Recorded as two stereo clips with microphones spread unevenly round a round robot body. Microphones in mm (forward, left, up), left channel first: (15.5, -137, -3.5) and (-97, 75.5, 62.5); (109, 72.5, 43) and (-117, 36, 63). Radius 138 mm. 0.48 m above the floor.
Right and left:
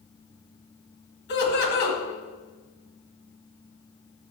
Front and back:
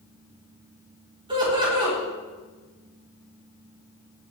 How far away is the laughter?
About 3 m.